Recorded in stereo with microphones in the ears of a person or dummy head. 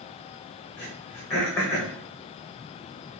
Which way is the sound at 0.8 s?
10° left (ahead or behind).